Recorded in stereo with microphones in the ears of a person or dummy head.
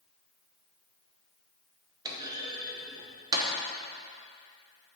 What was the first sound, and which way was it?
A clunk, 20° right (ahead or behind).